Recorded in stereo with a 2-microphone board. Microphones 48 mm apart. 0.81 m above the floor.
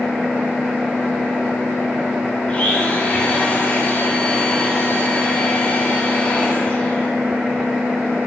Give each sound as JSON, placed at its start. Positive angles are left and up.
{"t": 2.5, "sound": "a blender", "side_deg": 35, "distance_m": 5.0}